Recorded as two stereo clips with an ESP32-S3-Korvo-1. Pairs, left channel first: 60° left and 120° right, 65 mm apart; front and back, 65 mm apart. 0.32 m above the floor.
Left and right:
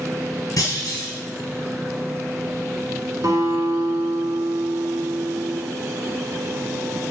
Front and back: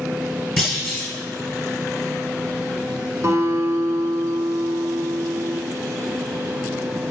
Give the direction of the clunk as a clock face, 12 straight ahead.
9 o'clock.